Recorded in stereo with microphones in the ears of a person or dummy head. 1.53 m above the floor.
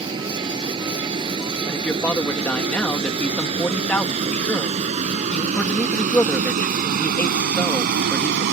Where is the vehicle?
25° right (ahead or behind); by 8.5 s 65° right (ahead or behind).